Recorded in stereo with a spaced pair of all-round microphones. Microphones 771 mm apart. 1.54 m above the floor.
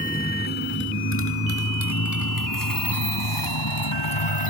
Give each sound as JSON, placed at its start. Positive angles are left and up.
{"t": 0.0, "sound": "a motorcycle", "side_deg": 10}